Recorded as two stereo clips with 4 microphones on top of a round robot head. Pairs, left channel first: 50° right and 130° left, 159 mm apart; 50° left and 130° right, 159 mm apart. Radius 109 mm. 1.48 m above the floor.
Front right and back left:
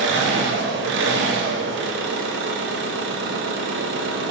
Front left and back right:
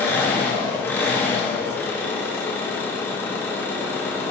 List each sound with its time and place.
0.0 s an engine running: 130° left, 1.5 m